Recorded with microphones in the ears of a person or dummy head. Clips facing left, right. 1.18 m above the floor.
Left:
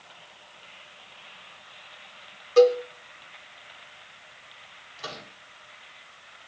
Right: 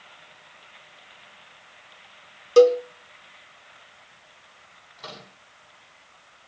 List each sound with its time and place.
2.6 s a cowbell: 55° right (ahead or behind), 1.5 m
5.0 s a microwave: 5° left (ahead or behind), 9 m